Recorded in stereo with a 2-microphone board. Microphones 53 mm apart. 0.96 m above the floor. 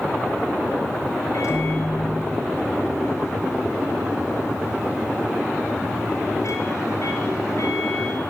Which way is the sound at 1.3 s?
75° left (ahead or behind).